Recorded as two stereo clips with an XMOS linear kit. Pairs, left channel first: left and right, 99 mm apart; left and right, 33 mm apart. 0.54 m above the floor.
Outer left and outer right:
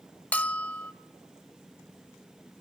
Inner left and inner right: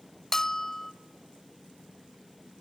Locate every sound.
0.3 s a bell: 15° left (ahead or behind), 0.7 m